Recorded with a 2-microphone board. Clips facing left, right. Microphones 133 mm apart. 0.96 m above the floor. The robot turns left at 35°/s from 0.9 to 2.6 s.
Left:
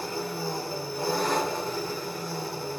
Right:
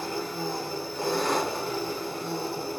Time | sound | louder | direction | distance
0.0 | an engine running | even | 20° left | 1.4 m